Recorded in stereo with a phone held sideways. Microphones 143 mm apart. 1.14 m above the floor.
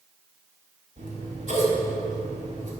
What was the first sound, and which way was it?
Scissors, 55° right (ahead or behind).